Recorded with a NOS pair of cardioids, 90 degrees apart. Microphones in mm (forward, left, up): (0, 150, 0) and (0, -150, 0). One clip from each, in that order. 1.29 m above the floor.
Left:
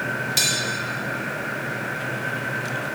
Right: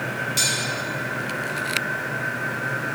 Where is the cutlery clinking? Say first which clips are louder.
Left 1 dB; 35° left, 1.7 m.